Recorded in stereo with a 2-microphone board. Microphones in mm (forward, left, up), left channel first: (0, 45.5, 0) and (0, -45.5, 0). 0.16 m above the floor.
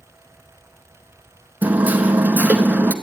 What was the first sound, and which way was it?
Hammering, 20° right (ahead or behind).